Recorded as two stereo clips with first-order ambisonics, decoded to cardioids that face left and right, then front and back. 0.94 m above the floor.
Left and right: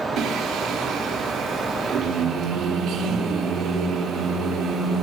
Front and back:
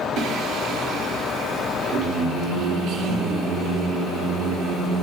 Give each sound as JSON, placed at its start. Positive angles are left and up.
{"t": 0.2, "sound": "singing", "azimuth_deg": -135, "distance_m": 2.5}